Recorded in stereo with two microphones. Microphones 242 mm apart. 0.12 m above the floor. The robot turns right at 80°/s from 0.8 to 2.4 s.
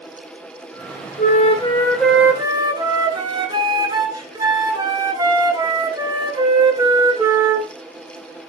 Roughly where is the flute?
Left.